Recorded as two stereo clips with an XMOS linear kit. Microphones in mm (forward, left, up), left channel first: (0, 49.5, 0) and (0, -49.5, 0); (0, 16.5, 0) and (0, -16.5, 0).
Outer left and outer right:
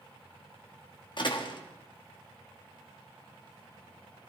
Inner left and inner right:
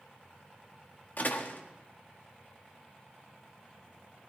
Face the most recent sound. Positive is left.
turn(degrees=55)  # may be behind; listen again after turning